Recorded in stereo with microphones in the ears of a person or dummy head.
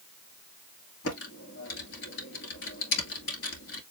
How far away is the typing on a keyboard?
About 2 m.